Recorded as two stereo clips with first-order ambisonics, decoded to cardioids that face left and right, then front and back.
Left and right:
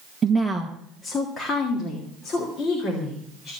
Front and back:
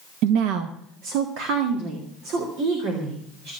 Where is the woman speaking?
160° right, 0.8 m; by 3.5 s 145° left, 4.5 m.